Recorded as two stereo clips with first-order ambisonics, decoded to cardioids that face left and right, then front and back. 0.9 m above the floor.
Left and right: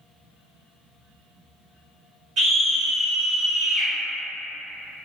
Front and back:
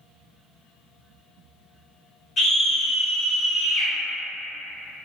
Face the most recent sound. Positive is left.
turn(degrees=-15)